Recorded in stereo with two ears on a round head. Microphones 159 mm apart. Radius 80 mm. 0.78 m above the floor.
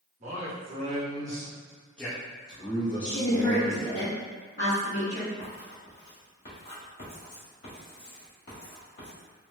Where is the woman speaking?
40° left (ahead or behind), 1.3 m.